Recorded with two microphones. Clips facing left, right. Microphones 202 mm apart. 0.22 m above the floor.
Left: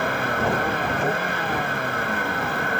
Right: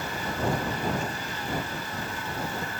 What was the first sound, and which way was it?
A vehicle, 80° left.